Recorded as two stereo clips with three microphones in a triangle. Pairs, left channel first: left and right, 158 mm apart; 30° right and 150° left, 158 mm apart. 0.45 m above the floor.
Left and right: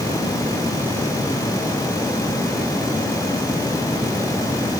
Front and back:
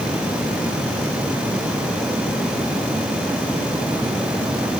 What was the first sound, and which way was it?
Only background noise.